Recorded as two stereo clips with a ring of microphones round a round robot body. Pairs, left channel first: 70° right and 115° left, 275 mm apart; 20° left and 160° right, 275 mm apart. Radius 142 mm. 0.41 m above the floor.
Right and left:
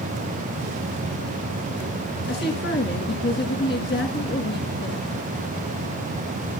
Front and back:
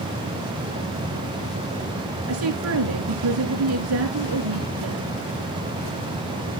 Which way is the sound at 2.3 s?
120° right.